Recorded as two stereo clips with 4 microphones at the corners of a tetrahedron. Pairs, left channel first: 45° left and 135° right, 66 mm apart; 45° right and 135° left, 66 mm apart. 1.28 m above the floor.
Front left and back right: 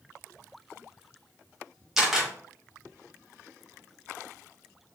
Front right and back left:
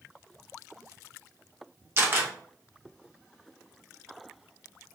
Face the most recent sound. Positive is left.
turn(degrees=145)